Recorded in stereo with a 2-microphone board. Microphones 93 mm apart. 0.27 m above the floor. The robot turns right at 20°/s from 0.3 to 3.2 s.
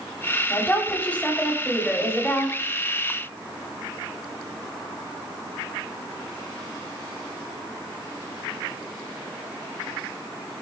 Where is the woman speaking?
20° left (ahead or behind), 0.9 m; by 2.6 s 10° left (ahead or behind), 0.9 m.